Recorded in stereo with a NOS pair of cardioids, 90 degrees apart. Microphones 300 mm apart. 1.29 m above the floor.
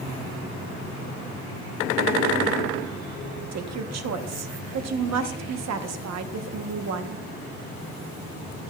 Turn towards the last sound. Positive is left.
turn(degrees=-60)